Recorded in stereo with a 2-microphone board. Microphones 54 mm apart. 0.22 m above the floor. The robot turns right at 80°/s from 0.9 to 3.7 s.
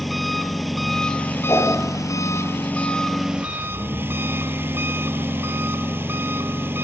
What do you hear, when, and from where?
0.0 s an engine running: straight ahead, 1.0 m; by 6.8 s 135° right, 1.0 m
1.5 s a whoosh: 65° left (ahead or behind), 6 m; by 1.8 s 75° left (ahead or behind), 6 m